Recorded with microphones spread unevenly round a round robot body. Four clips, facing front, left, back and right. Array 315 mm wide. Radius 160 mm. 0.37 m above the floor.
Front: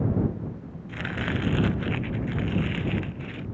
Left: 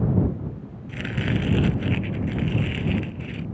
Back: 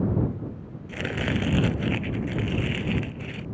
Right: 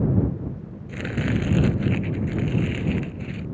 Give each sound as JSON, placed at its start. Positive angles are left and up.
{"t": 0.9, "sound": "chopping", "azimuth_deg": -150}